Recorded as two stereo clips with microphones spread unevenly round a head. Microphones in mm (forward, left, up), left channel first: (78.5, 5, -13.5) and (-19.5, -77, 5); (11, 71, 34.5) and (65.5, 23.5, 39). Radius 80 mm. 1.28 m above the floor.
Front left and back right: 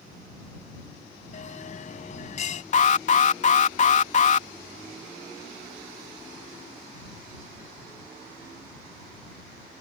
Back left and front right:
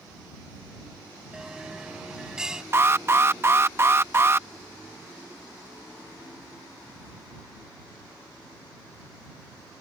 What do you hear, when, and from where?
1.3 s a bell: 30° left
2.7 s an alarm: 10° left